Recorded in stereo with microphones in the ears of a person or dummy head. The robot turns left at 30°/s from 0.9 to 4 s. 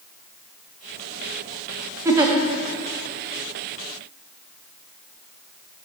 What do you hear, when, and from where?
2.0 s a giggle: 15° right (ahead or behind), 0.7 m; by 2.3 s 20° right (ahead or behind), 0.7 m